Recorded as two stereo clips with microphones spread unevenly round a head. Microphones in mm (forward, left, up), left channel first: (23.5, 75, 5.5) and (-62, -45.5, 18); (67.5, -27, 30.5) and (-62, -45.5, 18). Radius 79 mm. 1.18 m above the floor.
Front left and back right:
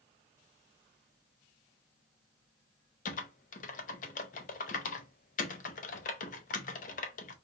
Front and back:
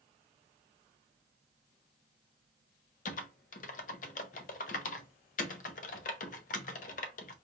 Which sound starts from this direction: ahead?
Typing on a keyboard, at 3.0 s.